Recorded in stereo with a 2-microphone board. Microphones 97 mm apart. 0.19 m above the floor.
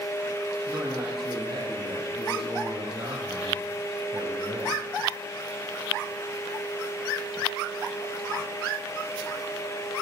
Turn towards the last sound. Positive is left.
turn(degrees=-75)  # may be behind; listen again after turning